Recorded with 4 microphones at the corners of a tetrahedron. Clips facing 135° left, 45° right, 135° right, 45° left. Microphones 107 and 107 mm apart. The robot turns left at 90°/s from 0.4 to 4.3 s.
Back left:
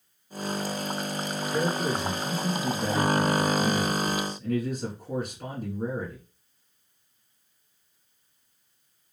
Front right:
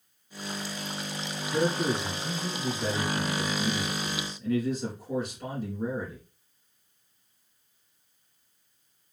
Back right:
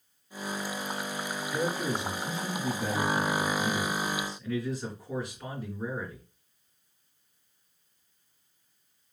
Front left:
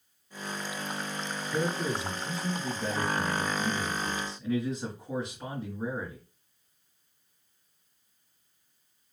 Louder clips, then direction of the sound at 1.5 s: Front right 1 dB, even; 10° right.